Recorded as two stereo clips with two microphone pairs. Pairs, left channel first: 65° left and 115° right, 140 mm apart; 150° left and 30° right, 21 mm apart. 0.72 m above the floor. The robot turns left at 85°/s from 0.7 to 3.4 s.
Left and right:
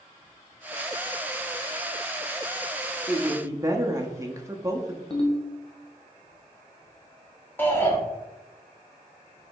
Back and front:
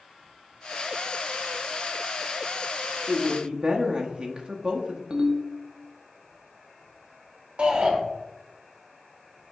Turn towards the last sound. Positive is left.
turn(degrees=-10)